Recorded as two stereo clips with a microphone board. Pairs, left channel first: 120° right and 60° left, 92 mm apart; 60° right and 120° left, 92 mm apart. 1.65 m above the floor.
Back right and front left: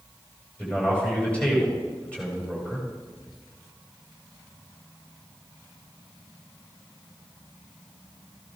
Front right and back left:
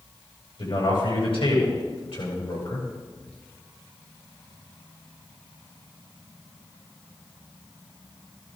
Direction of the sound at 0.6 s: 45° right.